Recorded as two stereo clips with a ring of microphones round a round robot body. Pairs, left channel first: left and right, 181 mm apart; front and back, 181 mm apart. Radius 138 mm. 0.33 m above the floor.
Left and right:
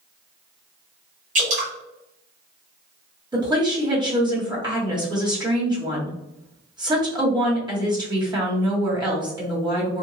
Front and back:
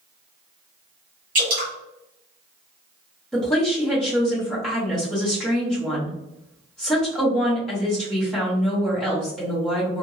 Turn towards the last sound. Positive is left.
turn(degrees=-85)